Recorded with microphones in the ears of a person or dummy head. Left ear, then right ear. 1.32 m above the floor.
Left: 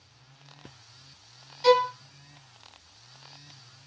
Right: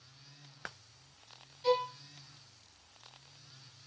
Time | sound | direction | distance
1.6 | a violin | 70° left (ahead or behind) | 0.6 m